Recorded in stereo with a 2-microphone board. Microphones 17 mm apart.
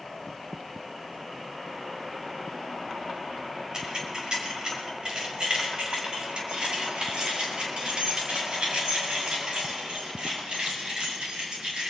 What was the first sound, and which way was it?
Keys jangling, 50° right (ahead or behind).